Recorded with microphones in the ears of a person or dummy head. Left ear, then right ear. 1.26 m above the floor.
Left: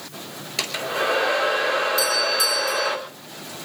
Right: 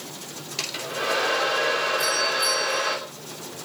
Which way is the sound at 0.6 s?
20° left (ahead or behind).